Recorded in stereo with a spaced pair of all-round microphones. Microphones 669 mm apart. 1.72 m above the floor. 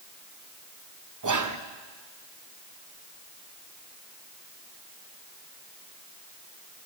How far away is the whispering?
About 0.6 m.